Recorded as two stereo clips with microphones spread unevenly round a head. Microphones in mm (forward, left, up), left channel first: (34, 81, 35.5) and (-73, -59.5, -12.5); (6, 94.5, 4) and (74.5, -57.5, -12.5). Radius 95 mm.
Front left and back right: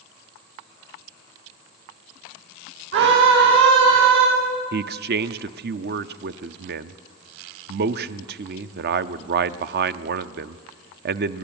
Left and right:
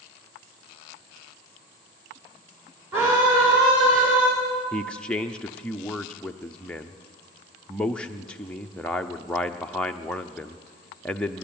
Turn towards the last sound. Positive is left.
turn(degrees=-160)